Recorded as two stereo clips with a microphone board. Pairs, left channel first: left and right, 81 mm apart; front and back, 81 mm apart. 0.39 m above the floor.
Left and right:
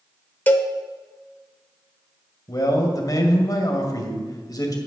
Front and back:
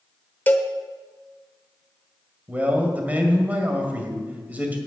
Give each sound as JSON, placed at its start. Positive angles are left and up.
{"t": 0.5, "sound": "a cowbell", "azimuth_deg": 45, "distance_m": 1.0}
{"t": 2.5, "sound": "a man speaking", "azimuth_deg": 115, "distance_m": 2.0}